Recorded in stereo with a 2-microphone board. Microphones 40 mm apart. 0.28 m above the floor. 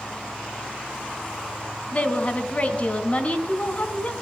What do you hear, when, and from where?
1.9 s a woman speaking: 35° left (ahead or behind), 2 m